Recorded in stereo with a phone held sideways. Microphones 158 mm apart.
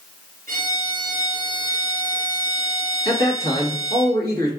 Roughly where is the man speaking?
Right.